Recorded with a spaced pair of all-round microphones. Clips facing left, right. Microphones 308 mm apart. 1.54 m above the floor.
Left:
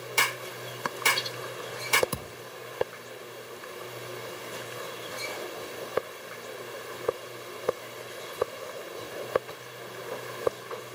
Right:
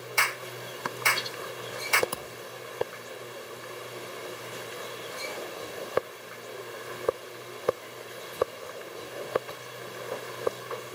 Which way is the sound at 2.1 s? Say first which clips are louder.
Left 1 dB; 30° left (ahead or behind).